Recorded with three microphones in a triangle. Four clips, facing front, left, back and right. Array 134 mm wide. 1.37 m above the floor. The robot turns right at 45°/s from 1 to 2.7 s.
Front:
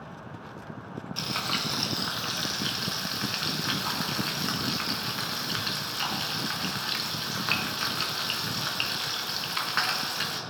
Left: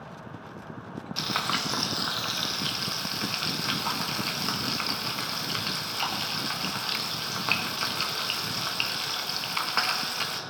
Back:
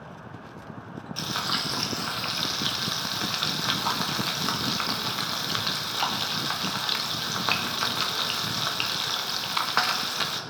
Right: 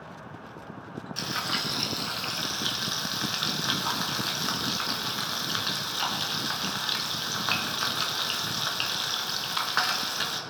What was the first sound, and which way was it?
Frying, 90° left.